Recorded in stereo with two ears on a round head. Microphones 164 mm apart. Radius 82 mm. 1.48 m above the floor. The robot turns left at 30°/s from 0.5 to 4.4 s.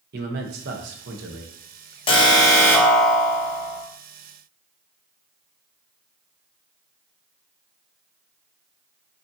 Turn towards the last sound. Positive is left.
turn(degrees=-40)